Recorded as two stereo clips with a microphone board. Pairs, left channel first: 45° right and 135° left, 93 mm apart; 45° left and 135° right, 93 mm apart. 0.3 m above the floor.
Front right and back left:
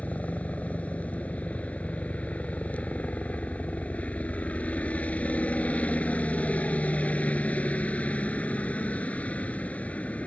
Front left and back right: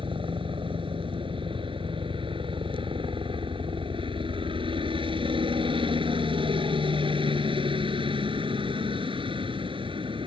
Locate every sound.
0.0 s a helicopter: 120° right